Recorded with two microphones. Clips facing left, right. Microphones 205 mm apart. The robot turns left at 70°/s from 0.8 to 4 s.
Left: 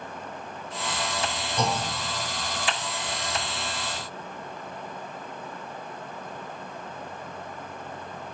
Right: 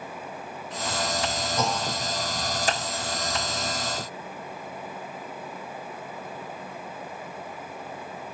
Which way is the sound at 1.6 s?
5° right (ahead or behind).